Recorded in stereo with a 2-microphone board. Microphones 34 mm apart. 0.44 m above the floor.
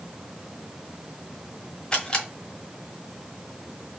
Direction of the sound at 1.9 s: 25° left (ahead or behind).